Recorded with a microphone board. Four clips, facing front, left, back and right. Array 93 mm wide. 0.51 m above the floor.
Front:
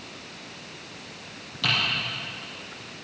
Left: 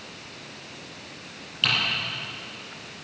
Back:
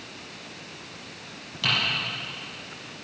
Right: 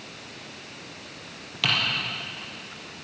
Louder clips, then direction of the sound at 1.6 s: Even, even; 100° right.